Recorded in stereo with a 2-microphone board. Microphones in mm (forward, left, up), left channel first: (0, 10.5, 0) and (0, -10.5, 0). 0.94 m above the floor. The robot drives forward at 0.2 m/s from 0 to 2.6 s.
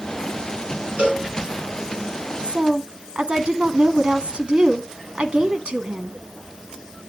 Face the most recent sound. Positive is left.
turn(degrees=-65)  # may be behind; listen again after turning